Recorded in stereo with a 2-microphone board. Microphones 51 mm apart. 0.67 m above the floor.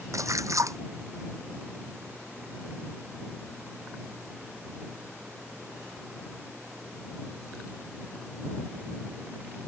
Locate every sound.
0.1 s a splash: 85° right